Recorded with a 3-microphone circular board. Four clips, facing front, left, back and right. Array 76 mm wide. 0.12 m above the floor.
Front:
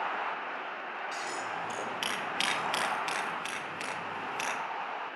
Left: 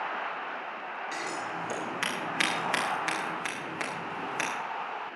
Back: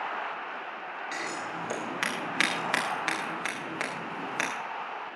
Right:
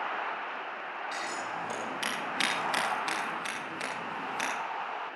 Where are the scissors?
165° left, 9 m.